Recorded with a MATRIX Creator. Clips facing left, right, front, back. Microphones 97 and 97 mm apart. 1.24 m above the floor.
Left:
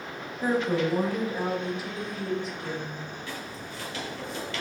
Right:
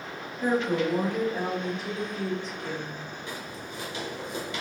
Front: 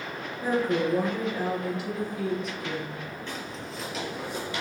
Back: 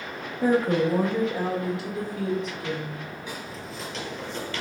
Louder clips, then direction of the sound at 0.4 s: Even, back 4 dB; 170° left.